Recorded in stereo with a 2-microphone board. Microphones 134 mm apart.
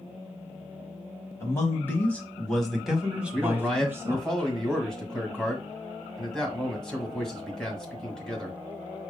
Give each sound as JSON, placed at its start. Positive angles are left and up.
{"t": 1.4, "sound": "a man speaking", "side_deg": 25, "distance_m": 1.3}
{"t": 3.3, "sound": "a man speaking", "side_deg": 5, "distance_m": 1.6}